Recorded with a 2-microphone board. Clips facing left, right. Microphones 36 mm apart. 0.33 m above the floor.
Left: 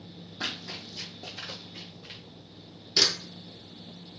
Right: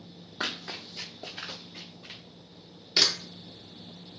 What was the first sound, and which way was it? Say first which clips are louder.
Running footsteps: right 1 dB; 55° right (ahead or behind).